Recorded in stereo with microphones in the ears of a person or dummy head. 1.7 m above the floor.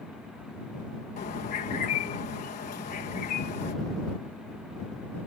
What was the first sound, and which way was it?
A bird, 40° left (ahead or behind).